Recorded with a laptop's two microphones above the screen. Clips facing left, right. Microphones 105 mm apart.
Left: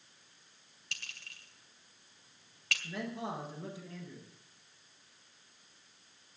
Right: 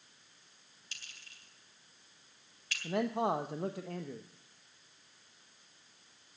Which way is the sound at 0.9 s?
80° left.